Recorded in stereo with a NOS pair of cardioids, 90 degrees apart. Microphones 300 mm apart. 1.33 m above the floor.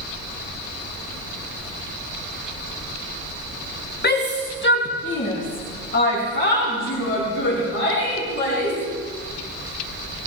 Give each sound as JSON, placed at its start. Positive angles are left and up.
{"t": 4.0, "sound": "a shout", "azimuth_deg": 35, "distance_m": 1.6}